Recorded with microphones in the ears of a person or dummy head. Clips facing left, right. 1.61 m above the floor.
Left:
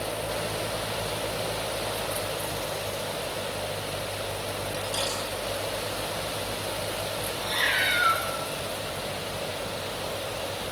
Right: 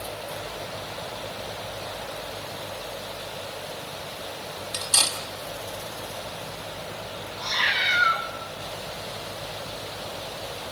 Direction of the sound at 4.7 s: 75° right (ahead or behind).